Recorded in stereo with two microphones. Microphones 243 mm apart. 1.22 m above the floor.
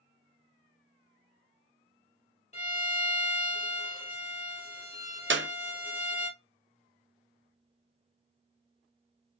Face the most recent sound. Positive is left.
turn(degrees=-50)  # may be behind; listen again after turning